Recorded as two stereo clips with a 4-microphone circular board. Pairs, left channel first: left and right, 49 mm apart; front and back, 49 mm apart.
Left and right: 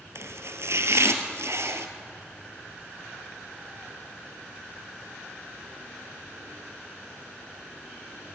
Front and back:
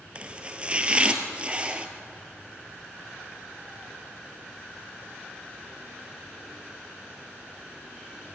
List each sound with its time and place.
0.1 s chopping: 115° right, 1.7 m